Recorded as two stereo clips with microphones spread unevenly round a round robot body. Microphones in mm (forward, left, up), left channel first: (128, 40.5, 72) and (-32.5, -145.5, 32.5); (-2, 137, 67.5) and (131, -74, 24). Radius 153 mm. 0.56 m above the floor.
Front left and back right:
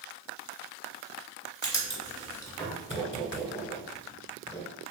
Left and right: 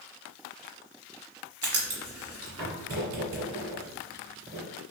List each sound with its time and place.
1.6 s writing: 25° right, 1.7 m